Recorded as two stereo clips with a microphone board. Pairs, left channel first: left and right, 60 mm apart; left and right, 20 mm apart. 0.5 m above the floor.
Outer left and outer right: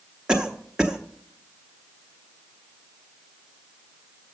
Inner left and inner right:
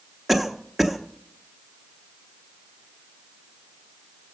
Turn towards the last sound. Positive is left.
turn(degrees=-15)  # may be behind; listen again after turning